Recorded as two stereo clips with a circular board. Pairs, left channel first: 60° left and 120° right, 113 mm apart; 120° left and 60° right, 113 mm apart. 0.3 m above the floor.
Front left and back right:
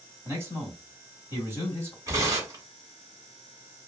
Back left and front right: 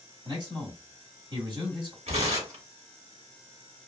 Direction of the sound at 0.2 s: 60° right.